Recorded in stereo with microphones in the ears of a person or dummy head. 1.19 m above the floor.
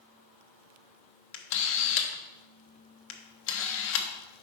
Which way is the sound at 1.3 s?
65° left (ahead or behind).